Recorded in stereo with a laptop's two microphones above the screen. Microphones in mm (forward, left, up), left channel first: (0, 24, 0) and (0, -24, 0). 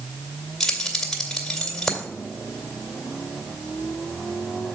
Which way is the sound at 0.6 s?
10° left (ahead or behind).